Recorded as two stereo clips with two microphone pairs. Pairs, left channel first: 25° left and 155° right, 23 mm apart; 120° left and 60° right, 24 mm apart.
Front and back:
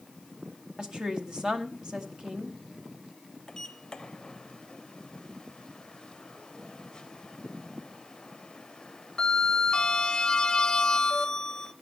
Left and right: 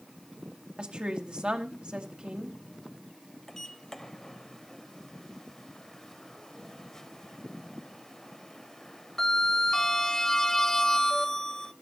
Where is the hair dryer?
I don't hear a hair dryer.